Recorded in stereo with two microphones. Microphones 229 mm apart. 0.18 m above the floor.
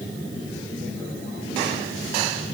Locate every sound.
Only background noise.